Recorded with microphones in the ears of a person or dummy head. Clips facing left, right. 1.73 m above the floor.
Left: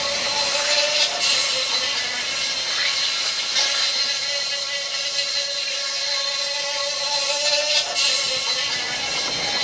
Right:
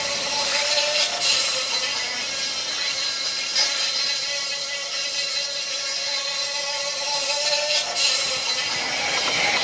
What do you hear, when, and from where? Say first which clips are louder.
0.0 s an insect: left 2 dB; 10° left (ahead or behind), 1.0 m